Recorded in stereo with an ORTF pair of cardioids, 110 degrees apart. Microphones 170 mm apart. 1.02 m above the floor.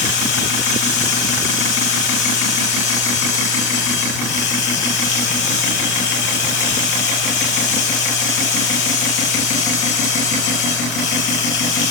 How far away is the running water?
About 3 m.